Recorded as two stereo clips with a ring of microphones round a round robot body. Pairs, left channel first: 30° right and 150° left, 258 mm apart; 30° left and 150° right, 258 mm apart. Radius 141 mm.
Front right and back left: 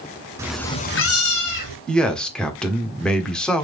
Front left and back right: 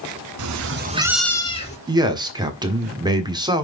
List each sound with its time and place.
0.4 s a cat meowing: 130° right, 0.9 m; by 1.8 s 35° right, 1.3 m
1.9 s a man speaking: 110° right, 1.4 m